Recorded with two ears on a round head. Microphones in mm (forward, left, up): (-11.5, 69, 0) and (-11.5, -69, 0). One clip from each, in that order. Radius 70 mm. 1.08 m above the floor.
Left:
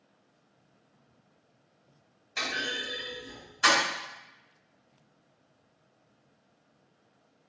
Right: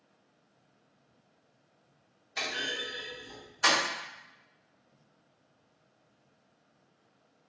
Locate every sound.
2.4 s a clunk: centre (ahead or behind), 2.0 m